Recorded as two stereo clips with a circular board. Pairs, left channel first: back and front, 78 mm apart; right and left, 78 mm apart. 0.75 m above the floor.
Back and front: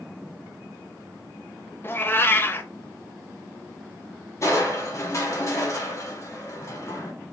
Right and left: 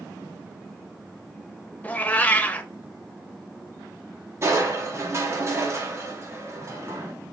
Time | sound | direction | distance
1.8 | a cat meowing | 145° right | 0.5 m
4.4 | crushing | 135° left | 1.3 m